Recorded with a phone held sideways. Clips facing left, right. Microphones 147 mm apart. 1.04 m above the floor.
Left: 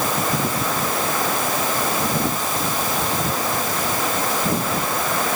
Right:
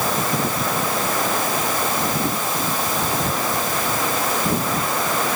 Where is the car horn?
No car horn in this recording.